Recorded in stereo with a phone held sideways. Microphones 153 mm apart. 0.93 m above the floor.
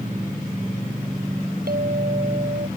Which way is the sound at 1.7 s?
75° right (ahead or behind).